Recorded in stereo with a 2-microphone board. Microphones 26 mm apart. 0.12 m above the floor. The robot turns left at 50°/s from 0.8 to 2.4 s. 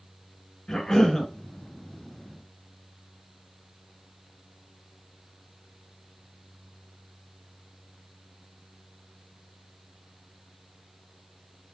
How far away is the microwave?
I don't hear a microwave.